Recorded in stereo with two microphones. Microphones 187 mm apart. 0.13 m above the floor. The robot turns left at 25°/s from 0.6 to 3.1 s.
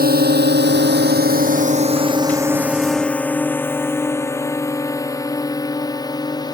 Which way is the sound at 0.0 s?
60° right (ahead or behind).